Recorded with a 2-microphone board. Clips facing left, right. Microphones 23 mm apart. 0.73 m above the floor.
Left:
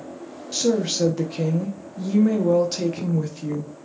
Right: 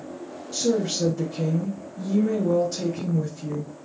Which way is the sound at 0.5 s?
50° left (ahead or behind).